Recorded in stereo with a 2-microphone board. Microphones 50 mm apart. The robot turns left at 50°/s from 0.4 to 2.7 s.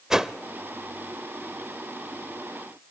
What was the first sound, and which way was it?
A whoosh, 10° right (ahead or behind).